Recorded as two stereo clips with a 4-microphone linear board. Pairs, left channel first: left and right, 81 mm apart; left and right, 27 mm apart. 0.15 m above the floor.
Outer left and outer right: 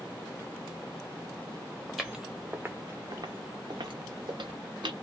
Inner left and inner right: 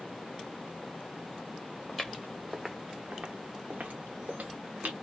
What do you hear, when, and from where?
1.9 s footsteps: 5° left (ahead or behind), 0.8 m; by 4.9 s 80° right, 1.3 m